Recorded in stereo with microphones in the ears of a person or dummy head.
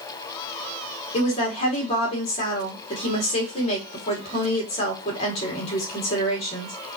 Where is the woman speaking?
35° left (ahead or behind), 1.4 m.